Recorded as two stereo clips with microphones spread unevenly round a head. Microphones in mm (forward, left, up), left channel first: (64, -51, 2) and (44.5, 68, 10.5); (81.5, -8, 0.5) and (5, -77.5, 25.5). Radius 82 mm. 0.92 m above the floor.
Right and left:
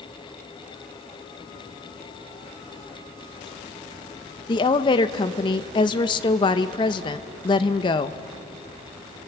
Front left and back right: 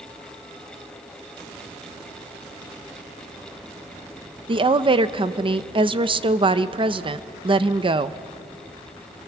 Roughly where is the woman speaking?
Right.